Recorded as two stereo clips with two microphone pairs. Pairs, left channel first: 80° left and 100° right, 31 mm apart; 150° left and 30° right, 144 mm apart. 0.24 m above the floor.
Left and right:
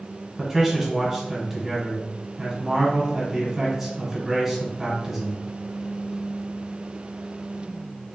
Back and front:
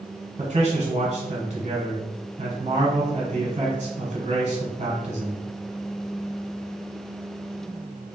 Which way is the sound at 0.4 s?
25° right.